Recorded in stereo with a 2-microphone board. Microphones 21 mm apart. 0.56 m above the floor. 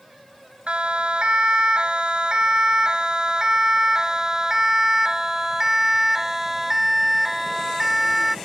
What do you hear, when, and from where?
0.7 s a siren: 60° right (ahead or behind); by 8.3 s 5° right (ahead or behind)